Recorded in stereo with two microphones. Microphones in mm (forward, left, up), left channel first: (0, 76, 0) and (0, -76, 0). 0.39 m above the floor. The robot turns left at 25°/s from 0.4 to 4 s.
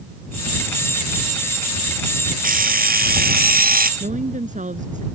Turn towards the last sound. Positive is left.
turn(degrees=-55)  # may be behind; listen again after turning